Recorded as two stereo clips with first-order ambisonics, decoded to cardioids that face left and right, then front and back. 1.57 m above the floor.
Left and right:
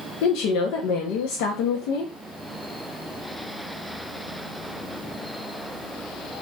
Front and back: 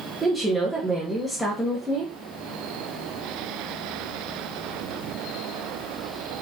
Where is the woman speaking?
90° left, 1.0 m.